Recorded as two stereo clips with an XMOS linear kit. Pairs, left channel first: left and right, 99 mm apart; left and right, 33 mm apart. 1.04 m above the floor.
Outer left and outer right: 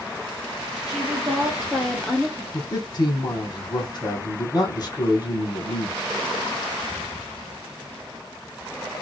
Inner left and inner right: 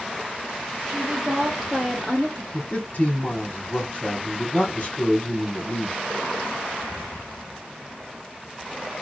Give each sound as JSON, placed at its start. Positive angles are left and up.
{"t": 0.9, "sound": "a woman speaking", "side_deg": -5, "distance_m": 1.5}
{"t": 2.5, "sound": "a man speaking", "side_deg": 45, "distance_m": 0.9}